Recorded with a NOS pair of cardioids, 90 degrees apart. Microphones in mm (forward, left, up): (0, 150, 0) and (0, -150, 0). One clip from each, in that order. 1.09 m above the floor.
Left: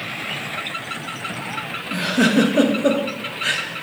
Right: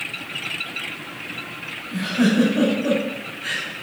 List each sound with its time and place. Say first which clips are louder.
1.9 s a giggle: left 3 dB; 60° left, 1.8 m